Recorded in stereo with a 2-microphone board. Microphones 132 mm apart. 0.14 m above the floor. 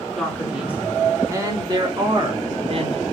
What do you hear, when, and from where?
0.2 s a man speaking: centre (ahead or behind), 2.0 m; by 3.0 s 45° right (ahead or behind), 2.5 m